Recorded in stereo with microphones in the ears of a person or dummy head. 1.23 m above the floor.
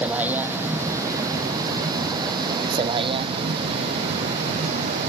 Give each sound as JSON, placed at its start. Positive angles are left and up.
{"t": 0.0, "sound": "a vehicle", "side_deg": -10}